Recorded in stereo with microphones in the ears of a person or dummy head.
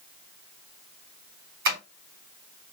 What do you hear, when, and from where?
1.6 s tapping: 50° right (ahead or behind), 1.4 m